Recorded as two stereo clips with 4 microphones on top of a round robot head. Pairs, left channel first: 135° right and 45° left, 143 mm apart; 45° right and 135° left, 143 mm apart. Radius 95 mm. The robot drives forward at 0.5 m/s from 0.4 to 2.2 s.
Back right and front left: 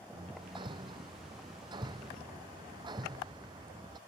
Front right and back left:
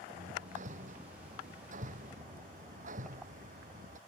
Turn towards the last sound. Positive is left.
turn(degrees=105)